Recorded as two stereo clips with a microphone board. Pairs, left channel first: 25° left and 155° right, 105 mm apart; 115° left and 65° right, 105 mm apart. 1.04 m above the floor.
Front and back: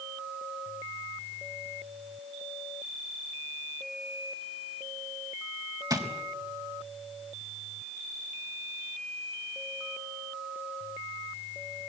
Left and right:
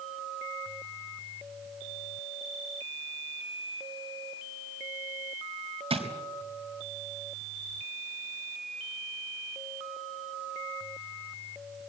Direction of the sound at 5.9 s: 100° right.